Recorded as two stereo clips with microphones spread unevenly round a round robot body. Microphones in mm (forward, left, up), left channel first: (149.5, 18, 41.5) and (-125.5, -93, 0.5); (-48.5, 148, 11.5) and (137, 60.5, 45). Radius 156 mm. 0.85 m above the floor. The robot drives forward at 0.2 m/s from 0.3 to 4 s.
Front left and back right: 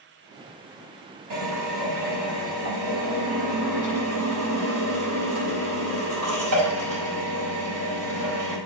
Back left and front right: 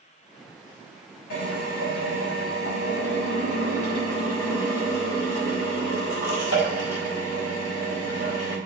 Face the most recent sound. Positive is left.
turn(degrees=160)